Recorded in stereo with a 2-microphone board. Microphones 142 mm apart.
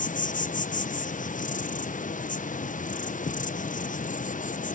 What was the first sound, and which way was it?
An insect, 65° left (ahead or behind).